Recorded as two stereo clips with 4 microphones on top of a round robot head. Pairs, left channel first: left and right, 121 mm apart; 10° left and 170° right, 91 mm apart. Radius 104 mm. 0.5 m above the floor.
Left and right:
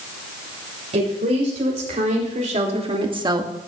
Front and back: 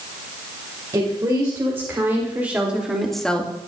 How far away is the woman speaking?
About 3.5 m.